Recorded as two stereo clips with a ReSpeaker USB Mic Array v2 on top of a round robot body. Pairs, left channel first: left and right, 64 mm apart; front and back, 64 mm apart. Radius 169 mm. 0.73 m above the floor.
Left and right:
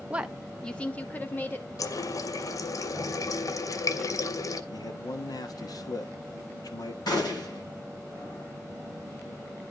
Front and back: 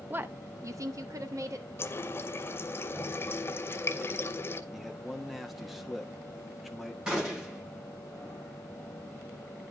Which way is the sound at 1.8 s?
55° left.